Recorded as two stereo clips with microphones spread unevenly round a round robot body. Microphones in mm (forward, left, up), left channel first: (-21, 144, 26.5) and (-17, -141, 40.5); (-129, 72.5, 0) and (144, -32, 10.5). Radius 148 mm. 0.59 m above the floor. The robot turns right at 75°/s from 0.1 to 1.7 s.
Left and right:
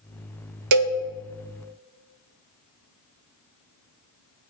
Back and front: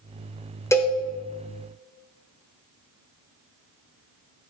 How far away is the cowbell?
About 0.5 m.